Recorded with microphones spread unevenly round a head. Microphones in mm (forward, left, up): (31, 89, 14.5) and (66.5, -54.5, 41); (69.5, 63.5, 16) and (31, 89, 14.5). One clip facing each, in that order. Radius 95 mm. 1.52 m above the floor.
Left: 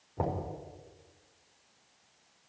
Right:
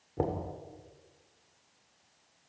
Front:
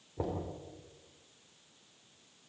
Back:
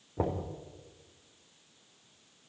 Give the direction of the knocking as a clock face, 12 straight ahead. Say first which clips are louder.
Right 1 dB, back 4 dB; 4 o'clock.